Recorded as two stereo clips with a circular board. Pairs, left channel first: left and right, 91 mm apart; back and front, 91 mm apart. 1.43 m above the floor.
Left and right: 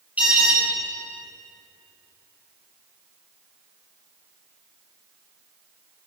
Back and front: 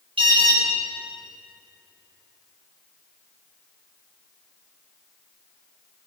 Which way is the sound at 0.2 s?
15° right.